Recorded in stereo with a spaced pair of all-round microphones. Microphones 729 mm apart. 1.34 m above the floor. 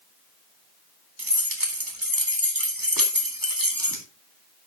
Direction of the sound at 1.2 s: 25° right (ahead or behind).